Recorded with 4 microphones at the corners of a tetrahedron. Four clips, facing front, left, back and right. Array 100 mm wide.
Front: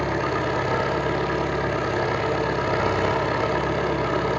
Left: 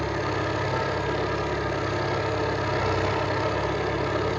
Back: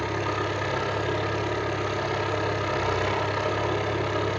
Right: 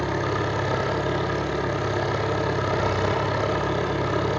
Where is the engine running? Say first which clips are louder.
Right 2 dB, front 4 dB; 30° right, 8 m.